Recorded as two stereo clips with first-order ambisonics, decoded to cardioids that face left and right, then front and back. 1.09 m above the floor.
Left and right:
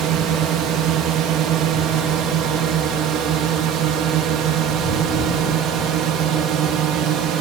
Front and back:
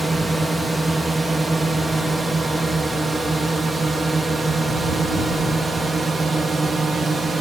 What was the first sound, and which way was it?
A drone, 100° right.